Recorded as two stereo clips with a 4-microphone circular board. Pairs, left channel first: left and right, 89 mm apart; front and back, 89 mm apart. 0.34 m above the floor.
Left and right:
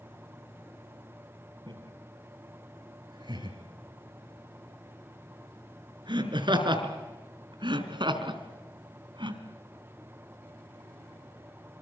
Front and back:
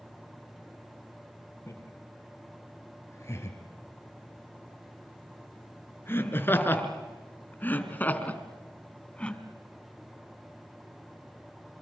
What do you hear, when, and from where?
1.7 s laughter: 60° right, 8 m; by 9.4 s 75° right, 3 m